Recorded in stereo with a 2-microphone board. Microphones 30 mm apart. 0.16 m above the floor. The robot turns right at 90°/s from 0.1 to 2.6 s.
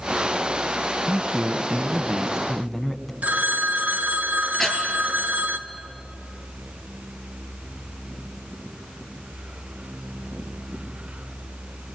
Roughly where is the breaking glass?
No breaking glass in this recording.